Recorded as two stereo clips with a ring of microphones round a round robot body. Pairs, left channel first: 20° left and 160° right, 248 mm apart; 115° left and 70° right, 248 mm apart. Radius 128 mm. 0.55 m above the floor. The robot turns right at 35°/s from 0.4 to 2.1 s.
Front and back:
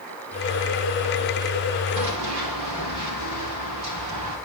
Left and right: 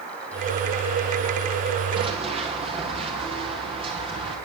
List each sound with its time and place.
2.0 s running footsteps: 140° right, 7.5 m; by 4.4 s 135° right, 9.5 m